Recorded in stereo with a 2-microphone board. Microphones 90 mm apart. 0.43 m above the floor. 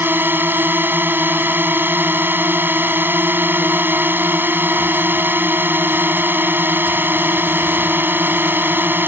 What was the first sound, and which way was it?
A drone, 20° right (ahead or behind).